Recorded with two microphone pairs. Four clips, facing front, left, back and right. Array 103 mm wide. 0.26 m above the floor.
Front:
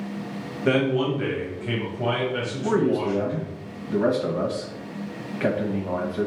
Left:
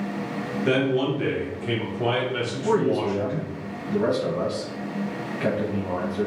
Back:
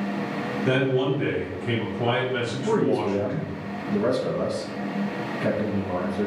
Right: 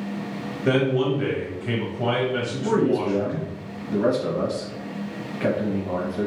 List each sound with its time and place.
0.7 s a man speaking: 30° right, 1.4 m; by 3.5 s 150° right, 1.7 m
2.6 s a man speaking: 5° right, 1.0 m